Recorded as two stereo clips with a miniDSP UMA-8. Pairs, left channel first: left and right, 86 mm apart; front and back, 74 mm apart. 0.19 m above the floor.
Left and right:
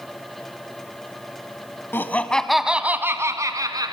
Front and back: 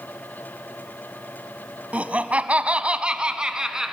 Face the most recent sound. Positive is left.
turn(degrees=-100)